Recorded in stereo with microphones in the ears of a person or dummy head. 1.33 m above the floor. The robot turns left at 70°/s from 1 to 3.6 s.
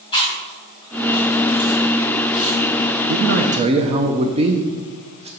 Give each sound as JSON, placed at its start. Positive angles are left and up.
{"t": 0.1, "sound": "chewing", "side_deg": 25, "distance_m": 2.0}
{"t": 3.1, "sound": "a man speaking", "azimuth_deg": -110, "distance_m": 0.5}